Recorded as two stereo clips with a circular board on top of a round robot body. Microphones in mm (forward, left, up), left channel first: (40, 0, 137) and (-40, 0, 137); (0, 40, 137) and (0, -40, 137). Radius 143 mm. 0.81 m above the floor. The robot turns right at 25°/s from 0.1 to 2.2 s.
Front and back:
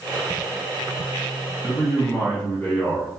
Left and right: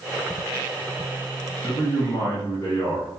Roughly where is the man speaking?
Ahead left.